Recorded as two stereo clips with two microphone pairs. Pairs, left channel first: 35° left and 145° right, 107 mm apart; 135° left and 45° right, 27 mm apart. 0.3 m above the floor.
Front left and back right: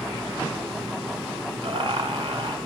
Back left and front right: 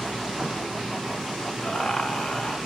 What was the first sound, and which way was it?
Laughter, 175° left.